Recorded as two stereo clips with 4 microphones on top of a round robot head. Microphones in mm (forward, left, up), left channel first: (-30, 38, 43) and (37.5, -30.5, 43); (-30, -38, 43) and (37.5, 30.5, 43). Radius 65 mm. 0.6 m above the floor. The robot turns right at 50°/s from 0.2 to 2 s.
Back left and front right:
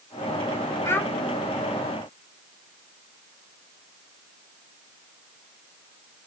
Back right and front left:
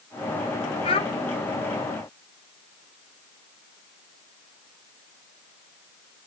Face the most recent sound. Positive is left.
turn(degrees=-105)